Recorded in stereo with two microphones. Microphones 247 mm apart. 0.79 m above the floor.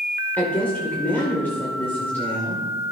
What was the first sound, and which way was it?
A woman speaking, 5° left (ahead or behind).